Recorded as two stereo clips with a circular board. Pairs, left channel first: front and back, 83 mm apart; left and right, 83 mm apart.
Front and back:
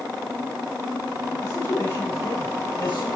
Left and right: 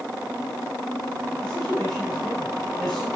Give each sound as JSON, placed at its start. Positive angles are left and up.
{"t": 1.4, "sound": "a man speaking", "azimuth_deg": 10, "distance_m": 5.5}